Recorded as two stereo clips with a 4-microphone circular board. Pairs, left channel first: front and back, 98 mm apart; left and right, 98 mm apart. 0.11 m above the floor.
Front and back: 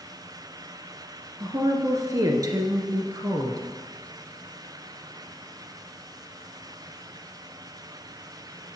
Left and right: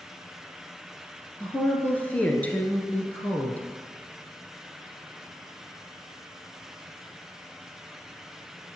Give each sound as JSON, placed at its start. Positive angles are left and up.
{"t": 1.4, "sound": "a woman speaking", "azimuth_deg": 155, "distance_m": 1.4}